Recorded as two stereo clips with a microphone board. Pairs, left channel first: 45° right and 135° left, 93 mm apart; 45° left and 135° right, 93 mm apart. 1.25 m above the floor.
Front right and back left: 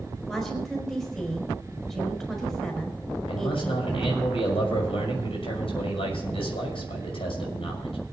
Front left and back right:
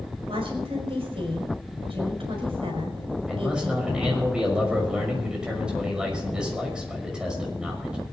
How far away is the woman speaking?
About 4.5 m.